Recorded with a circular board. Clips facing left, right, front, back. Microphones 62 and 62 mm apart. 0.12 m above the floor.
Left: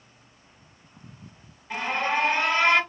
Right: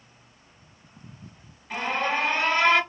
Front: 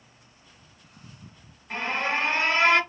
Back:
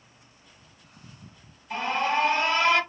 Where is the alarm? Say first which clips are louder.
Even, back 2 dB; 15° left, 3 m.